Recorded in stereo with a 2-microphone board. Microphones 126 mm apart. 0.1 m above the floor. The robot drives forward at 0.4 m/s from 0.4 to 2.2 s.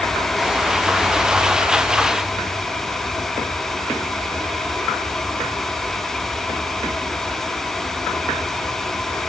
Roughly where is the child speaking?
I don't hear a child speaking.